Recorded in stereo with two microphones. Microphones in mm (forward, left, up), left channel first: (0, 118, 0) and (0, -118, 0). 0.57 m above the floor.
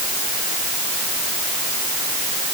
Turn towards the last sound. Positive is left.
No sound to turn to.